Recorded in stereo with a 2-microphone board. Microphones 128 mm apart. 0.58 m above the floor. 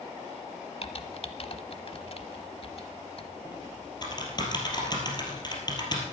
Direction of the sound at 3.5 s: 35° left (ahead or behind).